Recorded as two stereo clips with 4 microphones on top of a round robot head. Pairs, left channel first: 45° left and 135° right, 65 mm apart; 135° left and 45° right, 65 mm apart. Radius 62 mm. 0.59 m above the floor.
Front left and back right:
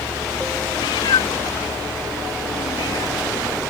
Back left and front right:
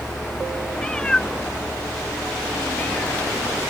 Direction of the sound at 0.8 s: 60° left.